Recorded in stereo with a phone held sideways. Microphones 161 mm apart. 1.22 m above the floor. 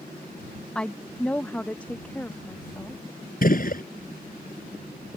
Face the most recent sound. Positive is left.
turn(degrees=65)  # may be behind; listen again after turning